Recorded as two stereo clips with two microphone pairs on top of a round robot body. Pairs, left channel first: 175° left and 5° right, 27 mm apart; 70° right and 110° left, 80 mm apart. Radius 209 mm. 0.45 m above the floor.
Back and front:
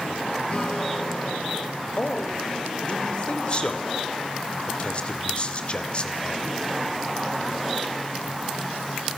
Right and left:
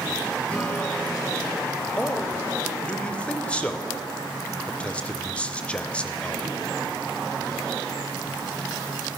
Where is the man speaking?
140° right, 3 m.